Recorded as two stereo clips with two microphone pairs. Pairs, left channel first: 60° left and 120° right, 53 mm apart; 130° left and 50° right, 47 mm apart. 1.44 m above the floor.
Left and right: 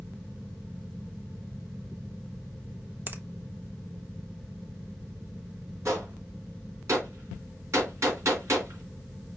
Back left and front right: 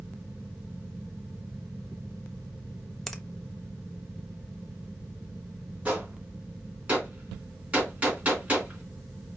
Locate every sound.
3.1 s a finger snap: 145° right, 0.7 m
5.8 s a gunshot: 100° right, 2.5 m